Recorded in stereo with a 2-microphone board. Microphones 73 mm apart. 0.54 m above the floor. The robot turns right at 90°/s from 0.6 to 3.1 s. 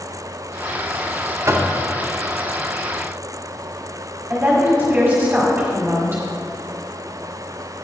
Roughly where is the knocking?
Right.